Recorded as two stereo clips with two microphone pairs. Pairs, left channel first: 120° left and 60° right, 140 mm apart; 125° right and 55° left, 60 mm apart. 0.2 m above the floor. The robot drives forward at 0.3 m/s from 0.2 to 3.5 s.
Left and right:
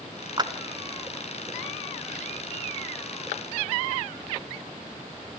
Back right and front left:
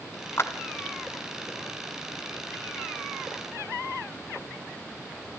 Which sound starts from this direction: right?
A clap, at 0.4 s.